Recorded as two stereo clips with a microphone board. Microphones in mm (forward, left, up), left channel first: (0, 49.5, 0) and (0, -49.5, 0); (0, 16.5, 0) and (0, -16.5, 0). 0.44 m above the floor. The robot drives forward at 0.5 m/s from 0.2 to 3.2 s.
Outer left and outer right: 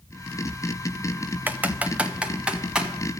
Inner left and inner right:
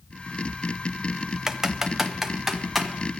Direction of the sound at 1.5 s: 15° right (ahead or behind).